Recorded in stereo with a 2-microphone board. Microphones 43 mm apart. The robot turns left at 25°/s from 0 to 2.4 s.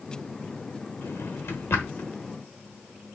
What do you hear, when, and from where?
1.0 s a drawer: 70° left (ahead or behind), 1.0 m; by 2.1 s 60° left (ahead or behind), 1.0 m